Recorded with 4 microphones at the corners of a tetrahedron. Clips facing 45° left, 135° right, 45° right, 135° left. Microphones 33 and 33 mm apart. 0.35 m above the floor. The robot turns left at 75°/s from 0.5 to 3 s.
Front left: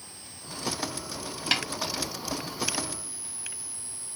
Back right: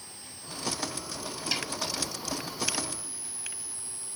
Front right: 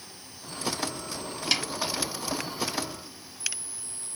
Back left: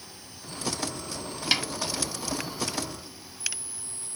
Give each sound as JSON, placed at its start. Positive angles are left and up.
{"t": 1.5, "sound": "a snare drum", "azimuth_deg": 65, "distance_m": 1.0}